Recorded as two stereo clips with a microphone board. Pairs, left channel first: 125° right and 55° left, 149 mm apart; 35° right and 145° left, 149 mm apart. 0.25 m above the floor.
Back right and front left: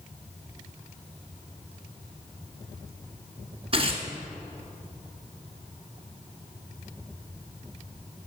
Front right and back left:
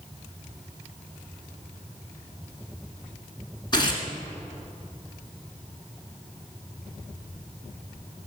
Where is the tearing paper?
20° left, 1.8 m.